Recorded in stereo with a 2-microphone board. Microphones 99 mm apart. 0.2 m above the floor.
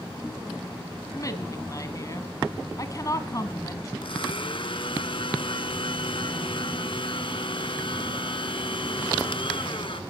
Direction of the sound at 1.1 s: 35° left (ahead or behind).